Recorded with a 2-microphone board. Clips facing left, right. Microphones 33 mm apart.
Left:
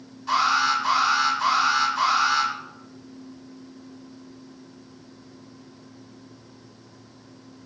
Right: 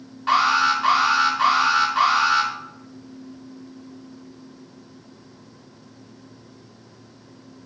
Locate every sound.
0.3 s an alarm: 55° right (ahead or behind), 2.5 m